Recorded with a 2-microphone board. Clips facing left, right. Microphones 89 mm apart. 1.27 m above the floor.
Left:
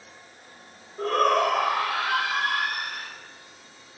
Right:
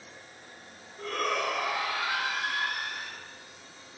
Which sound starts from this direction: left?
A shout, at 1.0 s.